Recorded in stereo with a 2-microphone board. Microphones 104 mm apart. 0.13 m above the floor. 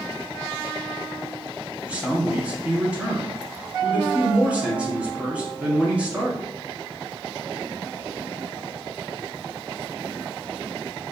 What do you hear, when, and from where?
1.8 s a man speaking: 15° right (ahead or behind), 1.2 m